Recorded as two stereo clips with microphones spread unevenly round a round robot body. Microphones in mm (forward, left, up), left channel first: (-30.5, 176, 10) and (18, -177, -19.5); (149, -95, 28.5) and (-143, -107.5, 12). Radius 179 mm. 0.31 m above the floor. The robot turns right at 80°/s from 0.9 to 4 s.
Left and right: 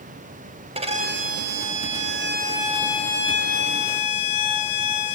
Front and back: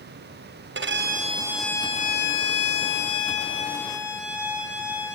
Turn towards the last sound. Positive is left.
turn(degrees=100)